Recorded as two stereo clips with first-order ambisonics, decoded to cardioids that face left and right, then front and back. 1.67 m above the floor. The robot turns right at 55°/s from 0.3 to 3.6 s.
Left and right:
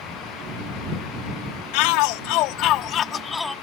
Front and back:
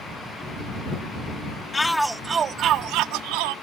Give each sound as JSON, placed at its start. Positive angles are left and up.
{"t": 1.7, "sound": "a shout", "azimuth_deg": 80}